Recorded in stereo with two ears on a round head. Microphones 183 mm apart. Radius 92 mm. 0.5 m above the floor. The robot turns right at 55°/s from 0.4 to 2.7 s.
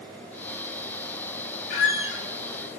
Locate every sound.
1.7 s a squeak: 85° left, 1.3 m; by 2.2 s 55° left (ahead or behind), 1.3 m